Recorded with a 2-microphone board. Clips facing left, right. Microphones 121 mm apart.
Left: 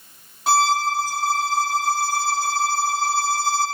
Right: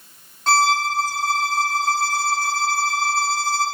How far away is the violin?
About 1.1 m.